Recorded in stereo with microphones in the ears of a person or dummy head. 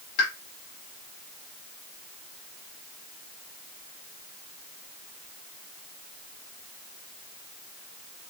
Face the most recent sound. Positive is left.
turn(degrees=60)  # may be behind; listen again after turning